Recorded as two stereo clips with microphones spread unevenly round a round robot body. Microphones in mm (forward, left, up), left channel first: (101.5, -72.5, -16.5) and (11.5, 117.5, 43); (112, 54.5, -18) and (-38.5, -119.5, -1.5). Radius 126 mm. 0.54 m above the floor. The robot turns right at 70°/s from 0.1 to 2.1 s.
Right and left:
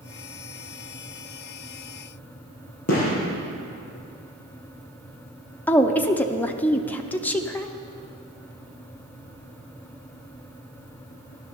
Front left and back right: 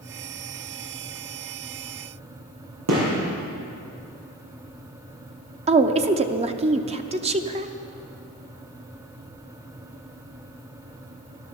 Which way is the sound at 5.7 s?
95° right.